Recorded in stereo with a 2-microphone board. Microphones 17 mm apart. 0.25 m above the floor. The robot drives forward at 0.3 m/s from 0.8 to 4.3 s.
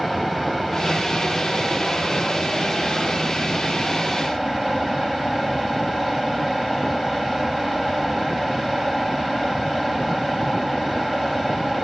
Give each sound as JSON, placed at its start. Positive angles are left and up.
{"t": 0.0, "sound": "running water", "side_deg": 5, "distance_m": 6.0}